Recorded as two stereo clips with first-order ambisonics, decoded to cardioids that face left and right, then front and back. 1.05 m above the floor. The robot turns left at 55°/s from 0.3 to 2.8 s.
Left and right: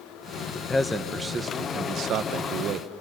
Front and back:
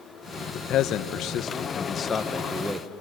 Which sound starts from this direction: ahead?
A man speaking, at 0.5 s.